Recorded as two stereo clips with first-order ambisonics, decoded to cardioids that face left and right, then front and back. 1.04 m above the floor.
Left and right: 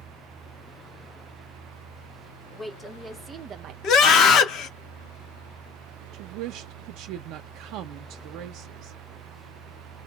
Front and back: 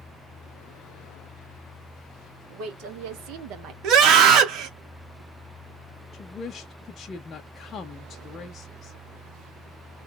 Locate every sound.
2.5 s a woman speaking: straight behind, 1.9 m; by 3.7 s 130° right, 0.8 m
3.8 s a scream: 135° left, 1.7 m
6.1 s a woman speaking: 65° right, 0.6 m